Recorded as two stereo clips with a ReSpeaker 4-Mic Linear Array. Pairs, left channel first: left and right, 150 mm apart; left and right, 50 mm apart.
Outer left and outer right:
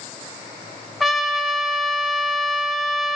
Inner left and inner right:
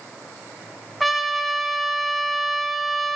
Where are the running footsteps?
No running footsteps in this recording.